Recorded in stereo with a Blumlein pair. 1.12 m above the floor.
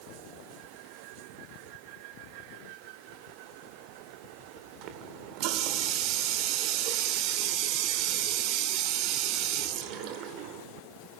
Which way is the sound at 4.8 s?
40° right.